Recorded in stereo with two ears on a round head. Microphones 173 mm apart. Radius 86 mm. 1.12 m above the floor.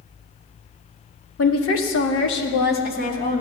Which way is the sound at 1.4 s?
80° left.